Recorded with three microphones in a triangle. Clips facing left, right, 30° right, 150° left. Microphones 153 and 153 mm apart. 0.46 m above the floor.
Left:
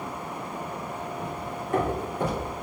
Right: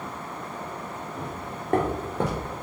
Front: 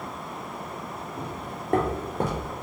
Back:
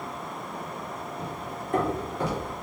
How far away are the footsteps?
About 1.9 m.